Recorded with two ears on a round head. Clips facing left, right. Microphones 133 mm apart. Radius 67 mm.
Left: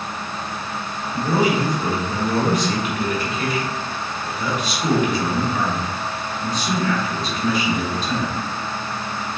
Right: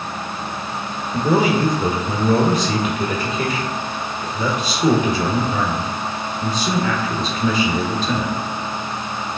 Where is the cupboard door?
No cupboard door in this recording.